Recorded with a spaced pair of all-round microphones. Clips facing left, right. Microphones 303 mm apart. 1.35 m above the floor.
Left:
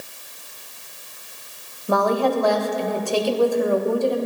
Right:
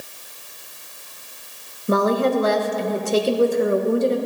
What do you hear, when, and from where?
1.9 s a woman speaking: 25° right (ahead or behind), 1.2 m